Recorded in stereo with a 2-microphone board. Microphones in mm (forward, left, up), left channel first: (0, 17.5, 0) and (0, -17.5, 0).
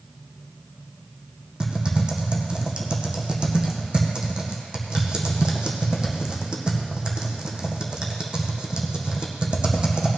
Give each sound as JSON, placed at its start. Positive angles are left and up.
{"t": 1.6, "sound": "typing on a keyboard", "side_deg": -30, "distance_m": 1.8}